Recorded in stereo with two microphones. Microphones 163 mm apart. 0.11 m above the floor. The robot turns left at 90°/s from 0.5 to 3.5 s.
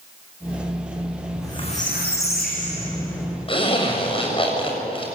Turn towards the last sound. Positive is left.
turn(degrees=35)  # may be behind; listen again after turning